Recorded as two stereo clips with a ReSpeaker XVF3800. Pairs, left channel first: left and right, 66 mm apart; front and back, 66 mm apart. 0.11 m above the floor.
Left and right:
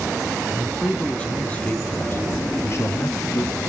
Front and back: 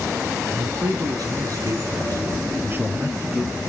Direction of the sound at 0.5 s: 170° left.